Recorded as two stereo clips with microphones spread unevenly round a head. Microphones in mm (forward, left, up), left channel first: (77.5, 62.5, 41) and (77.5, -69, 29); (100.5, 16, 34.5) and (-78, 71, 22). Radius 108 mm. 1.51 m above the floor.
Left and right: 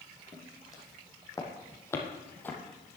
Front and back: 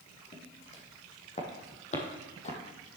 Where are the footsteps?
30° left, 3.5 m; by 2.6 s 20° left, 2 m.